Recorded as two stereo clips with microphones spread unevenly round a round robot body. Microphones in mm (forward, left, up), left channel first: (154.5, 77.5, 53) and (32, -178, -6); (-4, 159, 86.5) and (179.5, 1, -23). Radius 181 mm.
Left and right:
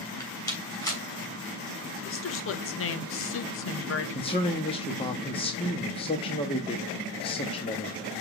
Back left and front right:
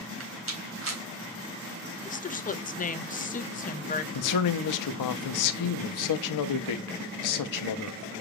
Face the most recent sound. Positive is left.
turn(degrees=145)